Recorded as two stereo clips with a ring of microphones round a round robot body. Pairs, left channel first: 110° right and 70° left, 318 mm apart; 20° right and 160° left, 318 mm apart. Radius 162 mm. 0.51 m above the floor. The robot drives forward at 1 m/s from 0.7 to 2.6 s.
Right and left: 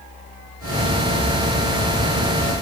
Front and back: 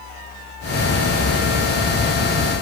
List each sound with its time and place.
Only background noise.